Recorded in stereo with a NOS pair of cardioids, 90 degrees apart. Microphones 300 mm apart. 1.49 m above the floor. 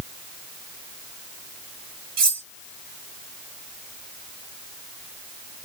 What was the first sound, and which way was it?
Cutlery clinking, 70° right.